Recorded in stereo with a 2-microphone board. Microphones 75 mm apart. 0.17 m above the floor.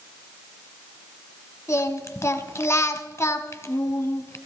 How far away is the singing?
About 1.0 m.